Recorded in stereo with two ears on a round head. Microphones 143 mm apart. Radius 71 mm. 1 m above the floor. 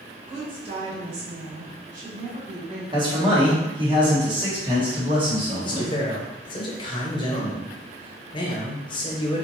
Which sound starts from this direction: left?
A man speaking, at 5.6 s.